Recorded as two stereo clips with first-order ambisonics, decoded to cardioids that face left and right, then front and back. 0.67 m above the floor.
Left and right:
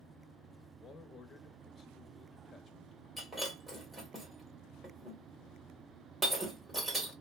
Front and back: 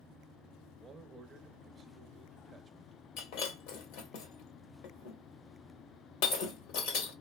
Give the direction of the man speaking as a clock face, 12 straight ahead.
8 o'clock.